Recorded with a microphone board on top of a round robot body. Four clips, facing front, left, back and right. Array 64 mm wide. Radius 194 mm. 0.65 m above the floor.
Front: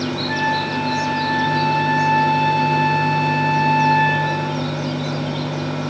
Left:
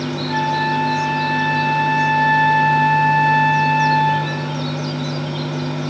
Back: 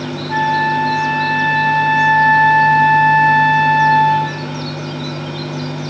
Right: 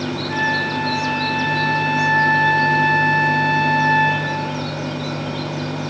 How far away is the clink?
No clink in this recording.